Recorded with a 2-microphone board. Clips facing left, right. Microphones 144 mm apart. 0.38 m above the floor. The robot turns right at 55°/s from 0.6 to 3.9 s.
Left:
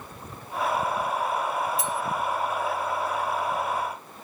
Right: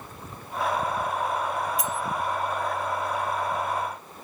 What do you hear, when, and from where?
1.8 s cutlery clinking: 25° left (ahead or behind), 0.6 m; by 2.0 s 35° left (ahead or behind), 0.6 m